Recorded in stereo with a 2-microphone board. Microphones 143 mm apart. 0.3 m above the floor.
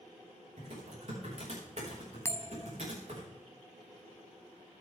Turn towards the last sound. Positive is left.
turn(degrees=20)  # may be behind; listen again after turning